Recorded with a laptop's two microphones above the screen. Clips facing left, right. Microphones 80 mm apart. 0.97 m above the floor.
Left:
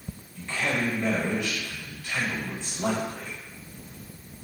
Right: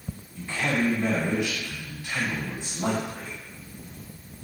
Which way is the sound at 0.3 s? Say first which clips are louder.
Right 2 dB; 15° right (ahead or behind).